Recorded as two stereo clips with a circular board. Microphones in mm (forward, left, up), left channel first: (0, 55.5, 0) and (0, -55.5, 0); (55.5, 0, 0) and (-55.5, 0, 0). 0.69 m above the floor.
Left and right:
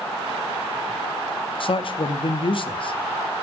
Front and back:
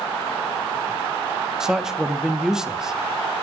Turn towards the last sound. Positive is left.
turn(degrees=95)